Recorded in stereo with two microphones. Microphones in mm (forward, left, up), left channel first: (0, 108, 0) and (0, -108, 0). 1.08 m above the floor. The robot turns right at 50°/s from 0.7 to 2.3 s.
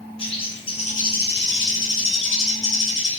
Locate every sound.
0.2 s a bird: 25° left, 0.7 m; by 3.2 s 105° left, 0.7 m